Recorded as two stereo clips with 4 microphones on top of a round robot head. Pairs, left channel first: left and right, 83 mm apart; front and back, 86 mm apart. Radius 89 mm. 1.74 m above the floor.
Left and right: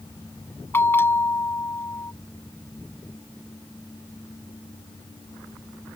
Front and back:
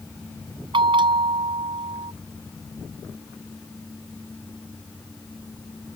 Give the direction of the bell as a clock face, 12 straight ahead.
7 o'clock.